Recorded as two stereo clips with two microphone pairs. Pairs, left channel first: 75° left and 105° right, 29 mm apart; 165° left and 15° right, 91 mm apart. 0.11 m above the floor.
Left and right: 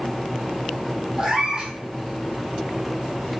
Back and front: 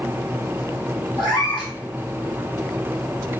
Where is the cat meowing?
165° right, 1.4 m.